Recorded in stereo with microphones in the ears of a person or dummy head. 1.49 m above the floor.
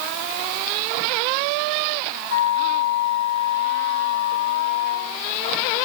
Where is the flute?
70° left (ahead or behind), 7.5 m.